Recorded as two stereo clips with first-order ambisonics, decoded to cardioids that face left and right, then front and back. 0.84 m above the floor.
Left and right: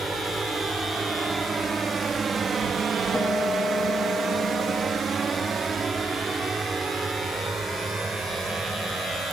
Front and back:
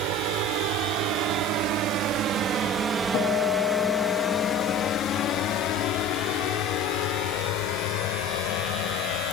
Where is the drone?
170° right; by 9.3 s 10° right.